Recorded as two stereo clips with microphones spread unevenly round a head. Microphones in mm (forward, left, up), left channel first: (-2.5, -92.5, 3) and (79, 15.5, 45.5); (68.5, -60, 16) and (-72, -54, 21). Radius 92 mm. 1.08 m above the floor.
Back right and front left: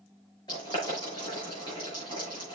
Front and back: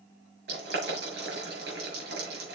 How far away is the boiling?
About 6 m.